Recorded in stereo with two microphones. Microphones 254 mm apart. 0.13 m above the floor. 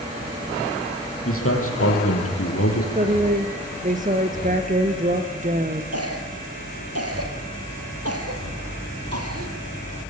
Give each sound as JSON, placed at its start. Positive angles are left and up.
{"t": 1.2, "sound": "a man speaking", "side_deg": 60, "distance_m": 5.5}
{"t": 3.0, "sound": "a woman speaking", "side_deg": -30, "distance_m": 2.0}
{"t": 5.9, "sound": "a cough", "side_deg": -70, "distance_m": 3.5}